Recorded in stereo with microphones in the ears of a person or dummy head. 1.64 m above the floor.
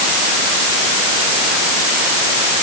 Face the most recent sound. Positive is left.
No sound to turn to.